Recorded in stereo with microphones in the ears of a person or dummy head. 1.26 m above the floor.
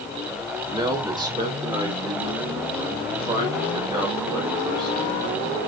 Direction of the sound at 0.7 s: 20° right (ahead or behind).